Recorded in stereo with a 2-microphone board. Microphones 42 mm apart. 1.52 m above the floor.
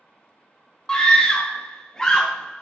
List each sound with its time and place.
0.9 s a scream: 15° left (ahead or behind), 0.7 m